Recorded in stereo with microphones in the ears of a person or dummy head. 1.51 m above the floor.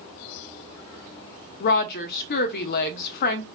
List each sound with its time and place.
1.6 s a woman speaking: 55° left (ahead or behind), 0.5 m